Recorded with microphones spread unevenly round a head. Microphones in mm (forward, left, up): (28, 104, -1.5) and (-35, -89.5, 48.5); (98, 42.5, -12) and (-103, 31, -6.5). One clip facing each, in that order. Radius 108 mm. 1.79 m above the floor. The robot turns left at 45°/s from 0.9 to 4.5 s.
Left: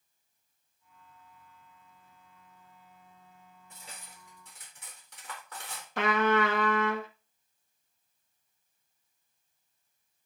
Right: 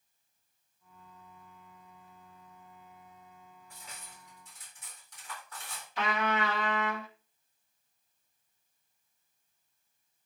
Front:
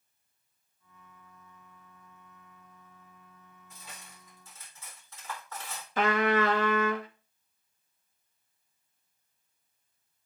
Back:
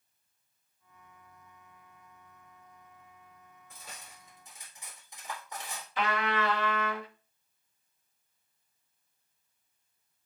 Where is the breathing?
I don't hear breathing.